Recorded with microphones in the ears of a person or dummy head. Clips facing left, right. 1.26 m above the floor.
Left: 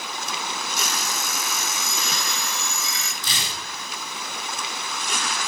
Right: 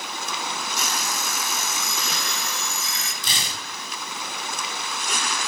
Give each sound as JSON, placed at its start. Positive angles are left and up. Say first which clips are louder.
{"t": 0.8, "sound": "an alarm clock", "louder": "even", "side_deg": 75, "distance_m": 1.7}
{"t": 3.2, "sound": "tearing paper", "louder": "even", "side_deg": -25, "distance_m": 4.0}